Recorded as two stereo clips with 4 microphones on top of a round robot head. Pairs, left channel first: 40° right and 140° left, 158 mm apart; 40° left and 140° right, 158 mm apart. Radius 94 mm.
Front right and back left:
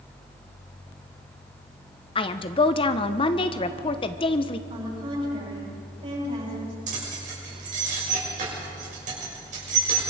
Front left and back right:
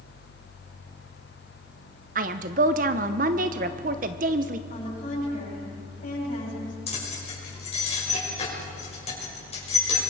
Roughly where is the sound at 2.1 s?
Right.